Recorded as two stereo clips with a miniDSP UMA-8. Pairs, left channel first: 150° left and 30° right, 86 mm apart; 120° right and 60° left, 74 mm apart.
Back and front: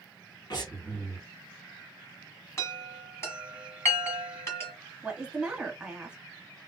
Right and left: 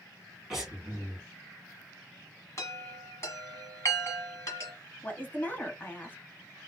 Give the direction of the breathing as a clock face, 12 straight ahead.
7 o'clock.